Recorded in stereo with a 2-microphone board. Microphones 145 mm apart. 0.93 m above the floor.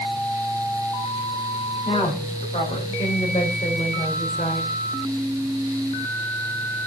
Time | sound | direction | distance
1.9 | a woman speaking | 45° left (ahead or behind) | 6.5 m